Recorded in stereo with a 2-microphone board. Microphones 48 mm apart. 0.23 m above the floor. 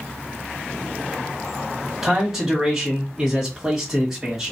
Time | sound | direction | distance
2.0 | a man speaking | 10° right (ahead or behind) | 1.3 m